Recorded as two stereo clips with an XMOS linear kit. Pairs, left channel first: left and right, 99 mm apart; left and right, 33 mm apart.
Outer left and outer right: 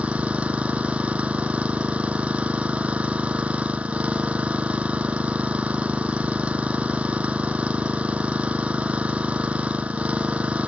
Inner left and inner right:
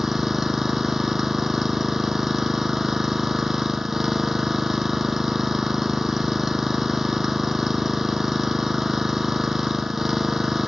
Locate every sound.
0.0 s an engine running: 10° right (ahead or behind)